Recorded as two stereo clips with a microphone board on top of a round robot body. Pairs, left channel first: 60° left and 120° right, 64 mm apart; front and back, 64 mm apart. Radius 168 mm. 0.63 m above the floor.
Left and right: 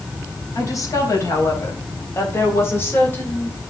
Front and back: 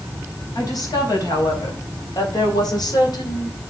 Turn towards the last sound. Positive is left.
turn(degrees=-5)